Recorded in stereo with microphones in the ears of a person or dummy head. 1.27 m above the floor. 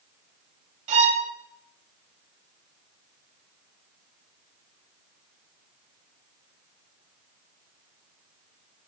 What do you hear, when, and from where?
0.9 s a violin: 40° right (ahead or behind), 2 m